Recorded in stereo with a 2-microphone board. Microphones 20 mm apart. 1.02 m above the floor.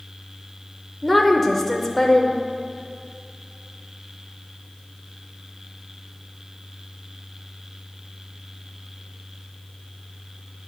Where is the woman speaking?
5° right (ahead or behind), 0.6 m.